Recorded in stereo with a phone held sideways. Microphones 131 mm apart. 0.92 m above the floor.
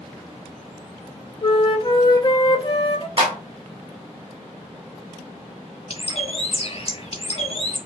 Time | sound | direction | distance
1.4 | a flute | 40° left (ahead or behind) | 0.7 m
3.2 | a clap | 40° right (ahead or behind) | 2 m
5.9 | a bird | 50° left (ahead or behind) | 0.8 m